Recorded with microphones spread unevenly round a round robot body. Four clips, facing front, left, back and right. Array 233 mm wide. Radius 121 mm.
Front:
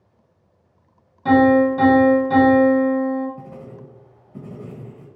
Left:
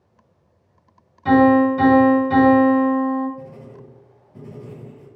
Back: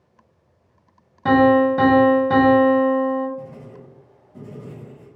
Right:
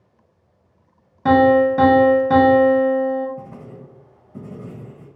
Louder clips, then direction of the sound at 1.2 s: Even, even; 125° right.